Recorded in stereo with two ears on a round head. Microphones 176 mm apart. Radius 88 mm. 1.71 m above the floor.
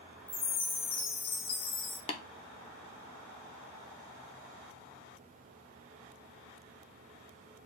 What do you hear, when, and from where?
0.3 s a chime: 30° left (ahead or behind), 1.2 m
2.1 s tapping: 30° left (ahead or behind), 0.7 m